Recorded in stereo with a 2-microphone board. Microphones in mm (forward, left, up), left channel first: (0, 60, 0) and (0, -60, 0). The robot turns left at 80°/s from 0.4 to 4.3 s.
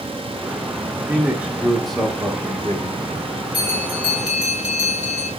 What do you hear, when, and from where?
0.9 s a man speaking: 20° right (ahead or behind), 1.3 m; by 3.3 s 20° left (ahead or behind), 1.3 m
3.5 s a bell: 50° left, 3 m; by 5.3 s 10° right, 3 m